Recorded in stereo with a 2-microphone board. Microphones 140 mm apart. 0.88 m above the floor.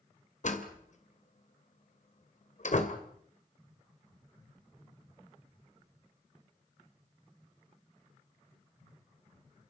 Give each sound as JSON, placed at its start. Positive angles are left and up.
{"t": 0.4, "sound": "a door slam", "side_deg": 60, "distance_m": 2.5}